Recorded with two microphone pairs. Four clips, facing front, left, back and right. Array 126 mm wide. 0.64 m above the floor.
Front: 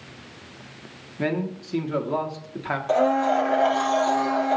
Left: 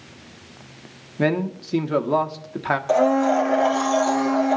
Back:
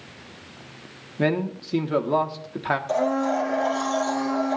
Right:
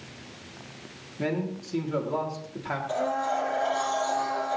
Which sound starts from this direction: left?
A man speaking, at 1.2 s.